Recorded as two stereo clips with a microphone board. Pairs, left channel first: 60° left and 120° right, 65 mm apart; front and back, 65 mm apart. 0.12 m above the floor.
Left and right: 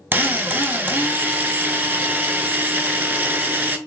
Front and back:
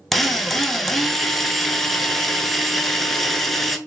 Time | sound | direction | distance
0.1 | a drill | 85° right | 0.5 m